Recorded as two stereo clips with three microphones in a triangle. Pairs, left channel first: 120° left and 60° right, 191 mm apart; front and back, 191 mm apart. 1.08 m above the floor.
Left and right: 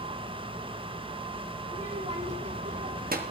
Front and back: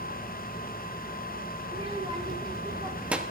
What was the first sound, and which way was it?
A child speaking, 120° right.